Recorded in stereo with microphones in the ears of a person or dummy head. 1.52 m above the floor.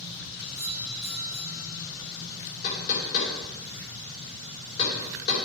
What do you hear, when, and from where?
0.5 s a doorbell: 35° left (ahead or behind), 4 m
2.6 s knocking: 50° left (ahead or behind), 3.5 m